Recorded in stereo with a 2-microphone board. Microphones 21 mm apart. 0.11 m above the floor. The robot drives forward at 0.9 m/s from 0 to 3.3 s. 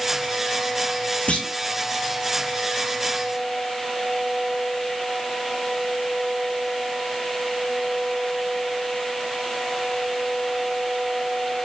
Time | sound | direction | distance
1.3 | a clunk | 80° left | 1.6 m